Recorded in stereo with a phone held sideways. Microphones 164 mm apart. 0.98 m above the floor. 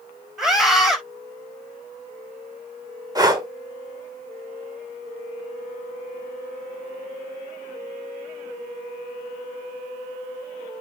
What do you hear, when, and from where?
0.4 s a scream: 5° right (ahead or behind), 5 m
3.1 s breathing: 25° right (ahead or behind), 1.9 m